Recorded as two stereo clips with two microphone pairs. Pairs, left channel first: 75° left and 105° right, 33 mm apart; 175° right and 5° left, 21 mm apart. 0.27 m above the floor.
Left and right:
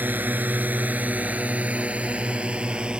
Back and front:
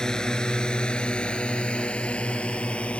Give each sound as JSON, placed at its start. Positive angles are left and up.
{"t": 0.0, "sound": "a drone", "azimuth_deg": -115}